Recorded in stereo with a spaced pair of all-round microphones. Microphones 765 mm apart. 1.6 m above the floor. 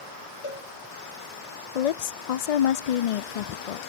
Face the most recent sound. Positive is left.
turn(degrees=60)  # may be behind; listen again after turning